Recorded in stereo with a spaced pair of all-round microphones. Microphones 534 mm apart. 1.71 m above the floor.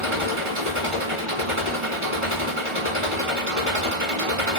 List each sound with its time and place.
0.0 s an engine running: 75° right (ahead or behind), 2 m